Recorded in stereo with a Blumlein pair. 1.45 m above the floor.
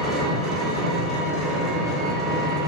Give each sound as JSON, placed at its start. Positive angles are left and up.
{"t": 0.0, "sound": "an engine running", "azimuth_deg": -10, "distance_m": 1.2}